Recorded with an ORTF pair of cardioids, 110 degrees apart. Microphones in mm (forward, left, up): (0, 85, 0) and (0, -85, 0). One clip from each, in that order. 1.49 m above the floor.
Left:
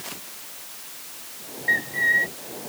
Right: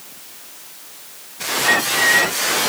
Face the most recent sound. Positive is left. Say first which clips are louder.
# right 5 dB
turn(degrees=-20)